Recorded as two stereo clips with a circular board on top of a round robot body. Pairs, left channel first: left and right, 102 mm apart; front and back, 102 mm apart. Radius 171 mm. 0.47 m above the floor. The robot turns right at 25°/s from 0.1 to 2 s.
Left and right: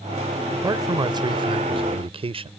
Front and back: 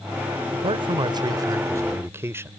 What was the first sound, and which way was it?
A man speaking, 150° right.